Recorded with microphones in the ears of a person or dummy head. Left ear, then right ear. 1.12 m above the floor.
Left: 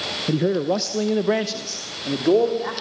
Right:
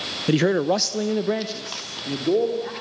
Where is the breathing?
No breathing in this recording.